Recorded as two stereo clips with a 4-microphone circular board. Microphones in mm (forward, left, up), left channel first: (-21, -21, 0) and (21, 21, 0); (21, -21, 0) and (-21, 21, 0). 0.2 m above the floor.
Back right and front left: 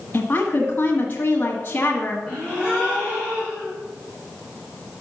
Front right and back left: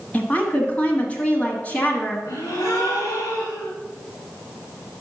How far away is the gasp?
About 3 m.